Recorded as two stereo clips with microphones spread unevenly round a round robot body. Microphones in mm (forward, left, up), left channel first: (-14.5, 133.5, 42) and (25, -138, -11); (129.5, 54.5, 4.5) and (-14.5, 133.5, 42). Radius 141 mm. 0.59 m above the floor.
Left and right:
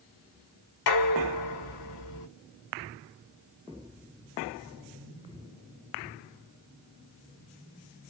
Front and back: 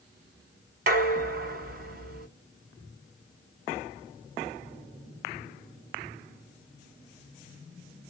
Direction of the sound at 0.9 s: 120° left.